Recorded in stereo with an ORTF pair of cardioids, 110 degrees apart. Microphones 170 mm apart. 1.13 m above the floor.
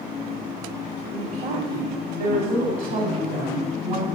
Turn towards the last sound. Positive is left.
turn(degrees=-65)